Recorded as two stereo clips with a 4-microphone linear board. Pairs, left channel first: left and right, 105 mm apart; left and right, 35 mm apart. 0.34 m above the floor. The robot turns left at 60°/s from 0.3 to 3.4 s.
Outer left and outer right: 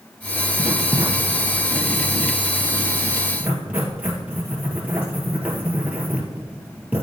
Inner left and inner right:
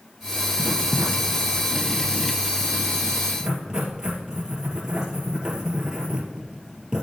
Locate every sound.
0.6 s writing: centre (ahead or behind), 1.7 m; by 7.0 s 15° right (ahead or behind), 1.7 m